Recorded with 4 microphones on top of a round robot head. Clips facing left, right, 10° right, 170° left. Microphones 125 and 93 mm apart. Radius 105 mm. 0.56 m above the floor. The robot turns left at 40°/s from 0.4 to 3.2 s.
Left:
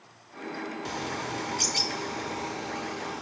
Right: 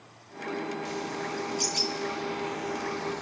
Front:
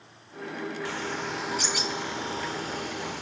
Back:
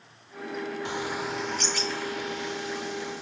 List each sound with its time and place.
0.8 s a bird: 100° left, 1.6 m; by 3.2 s 5° left, 1.6 m